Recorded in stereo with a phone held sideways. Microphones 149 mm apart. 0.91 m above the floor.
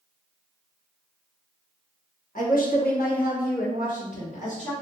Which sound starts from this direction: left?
A woman speaking, at 2.4 s.